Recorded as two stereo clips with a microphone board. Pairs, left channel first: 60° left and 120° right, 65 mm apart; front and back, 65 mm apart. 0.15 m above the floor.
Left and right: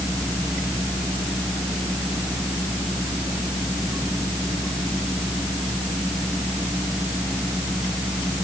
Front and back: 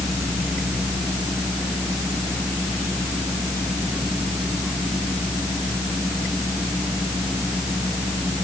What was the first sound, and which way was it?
Only background noise.